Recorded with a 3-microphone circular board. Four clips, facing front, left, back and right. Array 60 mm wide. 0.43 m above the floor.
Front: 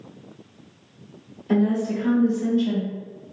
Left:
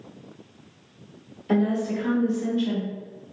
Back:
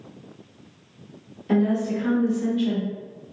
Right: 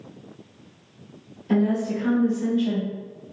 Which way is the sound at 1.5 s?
130° left.